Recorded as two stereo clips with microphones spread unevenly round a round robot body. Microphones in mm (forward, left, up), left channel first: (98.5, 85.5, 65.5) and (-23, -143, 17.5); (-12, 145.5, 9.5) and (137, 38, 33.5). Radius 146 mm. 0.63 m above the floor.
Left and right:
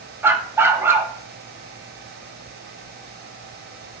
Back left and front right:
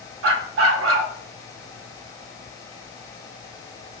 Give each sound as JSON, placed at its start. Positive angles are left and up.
{"t": 0.2, "sound": "a dog barking", "azimuth_deg": -35, "distance_m": 0.6}